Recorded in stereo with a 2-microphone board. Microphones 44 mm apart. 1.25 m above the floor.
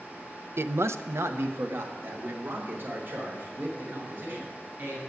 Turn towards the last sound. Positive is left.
turn(degrees=-50)  # may be behind; listen again after turning